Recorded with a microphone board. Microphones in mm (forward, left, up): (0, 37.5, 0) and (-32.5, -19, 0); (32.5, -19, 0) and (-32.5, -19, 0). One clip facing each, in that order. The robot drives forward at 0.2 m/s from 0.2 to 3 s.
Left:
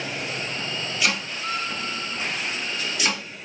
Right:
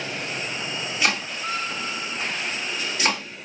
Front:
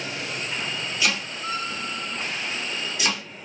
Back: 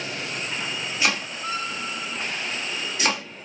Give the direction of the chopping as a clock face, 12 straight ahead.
5 o'clock.